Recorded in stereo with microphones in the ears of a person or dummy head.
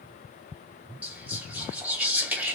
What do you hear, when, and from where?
1.0 s whispering: 10° right (ahead or behind), 0.9 m